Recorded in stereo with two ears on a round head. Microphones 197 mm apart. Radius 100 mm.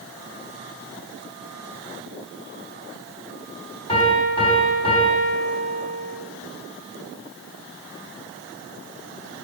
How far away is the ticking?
I don't hear ticking.